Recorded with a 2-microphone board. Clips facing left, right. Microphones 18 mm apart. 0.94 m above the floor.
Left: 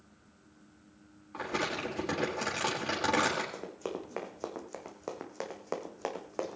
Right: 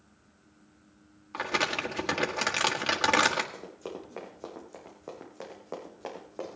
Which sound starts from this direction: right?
Crumpling, at 1.3 s.